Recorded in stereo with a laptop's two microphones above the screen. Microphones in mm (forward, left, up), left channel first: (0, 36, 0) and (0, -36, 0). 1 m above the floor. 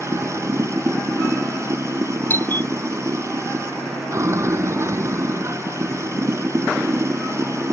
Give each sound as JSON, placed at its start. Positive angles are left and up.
{"t": 0.0, "sound": "running water", "side_deg": -40}
{"t": 2.3, "sound": "a doorbell", "side_deg": 30}